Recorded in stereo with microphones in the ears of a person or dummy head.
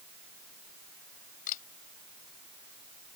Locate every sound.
1.5 s a camera shutter: 50° left (ahead or behind)